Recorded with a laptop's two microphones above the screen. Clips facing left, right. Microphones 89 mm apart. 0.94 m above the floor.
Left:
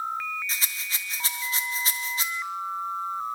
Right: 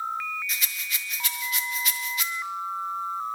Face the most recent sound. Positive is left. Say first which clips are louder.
# even
turn(degrees=30)  # may be behind; listen again after turning